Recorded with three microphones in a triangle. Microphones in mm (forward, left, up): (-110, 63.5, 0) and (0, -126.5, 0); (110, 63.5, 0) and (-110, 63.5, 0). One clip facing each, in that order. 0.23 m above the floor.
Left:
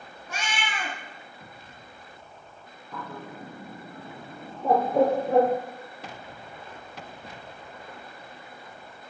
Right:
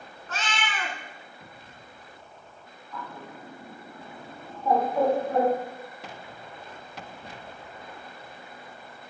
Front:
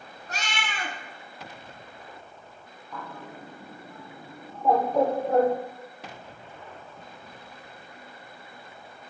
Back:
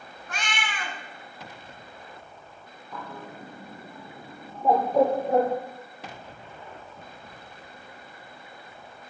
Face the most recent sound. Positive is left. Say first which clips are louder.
# left 2 dB, back 1 dB
turn(degrees=100)